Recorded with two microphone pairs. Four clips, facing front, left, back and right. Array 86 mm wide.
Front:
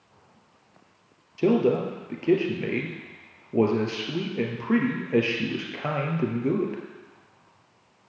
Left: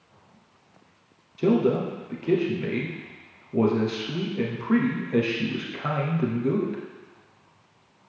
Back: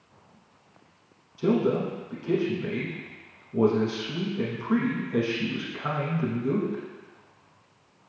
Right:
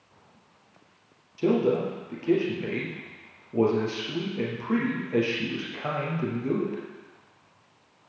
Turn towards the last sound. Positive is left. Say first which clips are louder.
# left 2 dB, front 3 dB
turn(degrees=10)